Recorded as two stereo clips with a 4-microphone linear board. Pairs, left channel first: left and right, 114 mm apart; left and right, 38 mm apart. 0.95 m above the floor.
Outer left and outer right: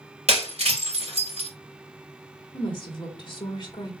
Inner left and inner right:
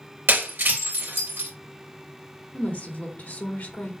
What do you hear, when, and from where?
0.3 s breaking glass: 70° right (ahead or behind), 3 m
2.5 s a woman speaking: 40° left (ahead or behind), 3.5 m